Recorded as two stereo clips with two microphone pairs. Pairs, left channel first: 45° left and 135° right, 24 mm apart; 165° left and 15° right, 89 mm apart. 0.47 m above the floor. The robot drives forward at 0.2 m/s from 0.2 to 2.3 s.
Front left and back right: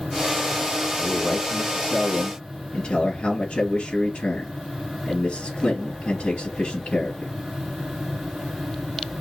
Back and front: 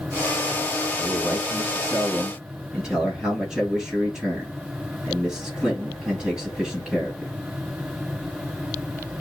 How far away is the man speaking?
About 3.5 m.